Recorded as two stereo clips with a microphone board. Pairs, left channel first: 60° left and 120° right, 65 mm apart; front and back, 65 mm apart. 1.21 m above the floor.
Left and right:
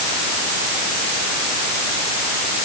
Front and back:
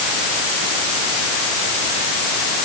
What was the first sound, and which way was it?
Only background noise.